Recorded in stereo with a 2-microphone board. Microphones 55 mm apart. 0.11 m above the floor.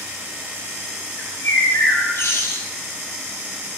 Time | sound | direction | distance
1.2 | a bird | 55° left (ahead or behind) | 0.6 m